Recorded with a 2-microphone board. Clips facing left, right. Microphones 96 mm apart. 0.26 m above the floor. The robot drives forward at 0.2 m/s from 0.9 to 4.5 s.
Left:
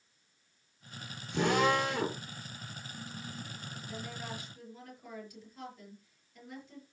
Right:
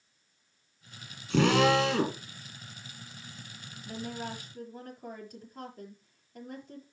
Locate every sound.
1.3 s a drill: 80° right, 4.5 m
3.9 s a woman speaking: 40° right (ahead or behind), 6 m